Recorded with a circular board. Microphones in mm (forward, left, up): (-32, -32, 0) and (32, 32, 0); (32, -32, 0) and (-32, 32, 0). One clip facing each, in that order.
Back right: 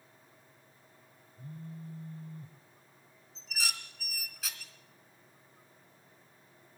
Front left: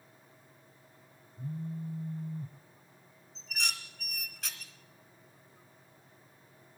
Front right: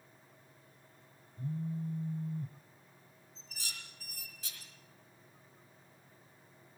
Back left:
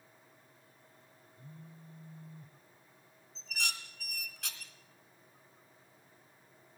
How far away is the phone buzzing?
About 0.6 m.